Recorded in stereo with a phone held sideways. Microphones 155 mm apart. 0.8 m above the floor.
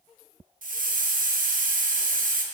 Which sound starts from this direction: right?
A hiss, at 0.6 s.